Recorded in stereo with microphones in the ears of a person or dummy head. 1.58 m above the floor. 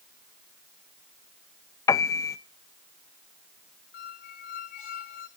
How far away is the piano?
About 0.6 m.